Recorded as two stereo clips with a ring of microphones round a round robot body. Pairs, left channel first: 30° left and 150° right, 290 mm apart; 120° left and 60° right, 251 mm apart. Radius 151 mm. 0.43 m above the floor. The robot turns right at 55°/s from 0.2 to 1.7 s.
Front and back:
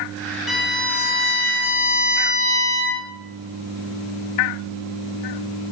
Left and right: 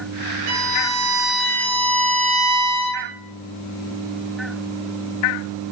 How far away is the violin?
About 7 m.